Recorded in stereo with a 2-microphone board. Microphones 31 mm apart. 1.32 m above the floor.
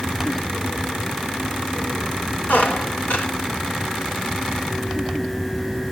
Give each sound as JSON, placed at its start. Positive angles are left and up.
{"t": 2.5, "sound": "a squeak", "side_deg": 70, "distance_m": 2.5}